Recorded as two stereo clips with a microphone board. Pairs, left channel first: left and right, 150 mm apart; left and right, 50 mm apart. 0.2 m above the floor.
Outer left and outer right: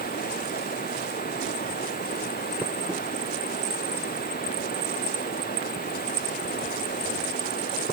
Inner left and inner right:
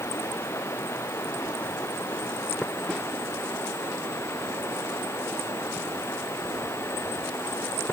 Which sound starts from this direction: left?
Running water, at 0.0 s.